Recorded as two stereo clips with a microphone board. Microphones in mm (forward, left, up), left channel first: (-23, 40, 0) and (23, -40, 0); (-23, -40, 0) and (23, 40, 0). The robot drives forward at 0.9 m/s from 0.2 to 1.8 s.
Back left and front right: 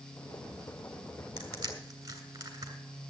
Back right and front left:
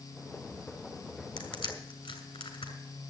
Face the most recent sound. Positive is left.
turn(degrees=-110)